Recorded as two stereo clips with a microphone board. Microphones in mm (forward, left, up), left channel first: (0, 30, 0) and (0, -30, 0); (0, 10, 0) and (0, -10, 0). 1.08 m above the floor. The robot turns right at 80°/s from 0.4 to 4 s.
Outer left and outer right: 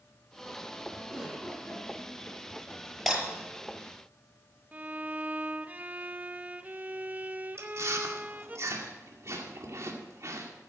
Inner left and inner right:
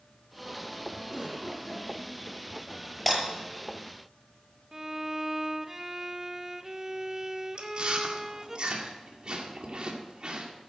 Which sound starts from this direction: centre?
Breaking glass, at 3.1 s.